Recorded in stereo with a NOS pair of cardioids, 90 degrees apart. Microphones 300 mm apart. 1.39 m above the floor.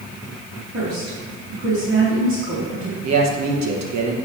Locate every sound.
0.7 s a woman speaking: 40° right, 2.5 m
3.0 s a man speaking: 60° right, 1.4 m